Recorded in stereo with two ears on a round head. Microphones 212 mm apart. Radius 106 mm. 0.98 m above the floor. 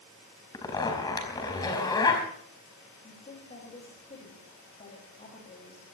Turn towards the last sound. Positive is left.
turn(degrees=30)  # may be behind; listen again after turning